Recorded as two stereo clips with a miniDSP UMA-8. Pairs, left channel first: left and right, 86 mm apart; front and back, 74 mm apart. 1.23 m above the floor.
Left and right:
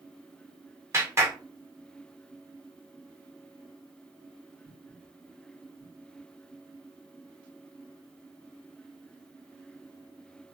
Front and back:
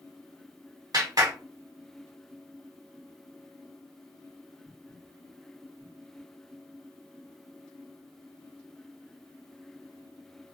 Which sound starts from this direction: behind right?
A clap, at 0.9 s.